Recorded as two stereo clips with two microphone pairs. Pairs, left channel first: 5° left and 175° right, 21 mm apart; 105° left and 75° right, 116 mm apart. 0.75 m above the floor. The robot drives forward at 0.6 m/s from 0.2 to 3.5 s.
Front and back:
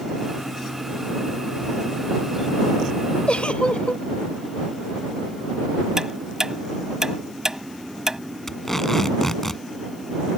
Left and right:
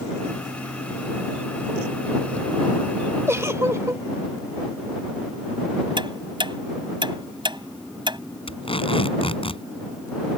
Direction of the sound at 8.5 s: 75° left.